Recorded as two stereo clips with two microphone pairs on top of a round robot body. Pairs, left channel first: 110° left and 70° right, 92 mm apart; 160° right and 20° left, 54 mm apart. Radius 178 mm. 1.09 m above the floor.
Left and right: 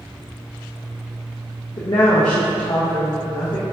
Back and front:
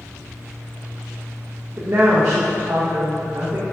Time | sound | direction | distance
1.8 | a woman speaking | 65° left | 1.1 m